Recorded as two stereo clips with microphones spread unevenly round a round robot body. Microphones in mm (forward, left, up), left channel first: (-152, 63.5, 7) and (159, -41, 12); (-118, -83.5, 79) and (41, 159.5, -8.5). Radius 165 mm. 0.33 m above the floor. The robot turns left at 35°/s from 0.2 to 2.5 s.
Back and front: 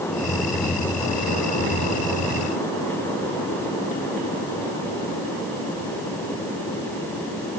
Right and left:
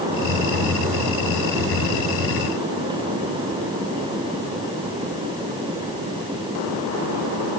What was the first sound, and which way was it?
Only background noise.